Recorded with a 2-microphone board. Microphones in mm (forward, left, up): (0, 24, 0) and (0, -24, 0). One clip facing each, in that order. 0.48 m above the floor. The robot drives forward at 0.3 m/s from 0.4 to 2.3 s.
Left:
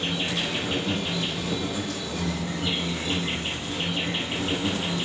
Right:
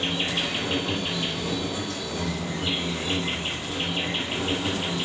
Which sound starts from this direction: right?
An insect, at 0.0 s.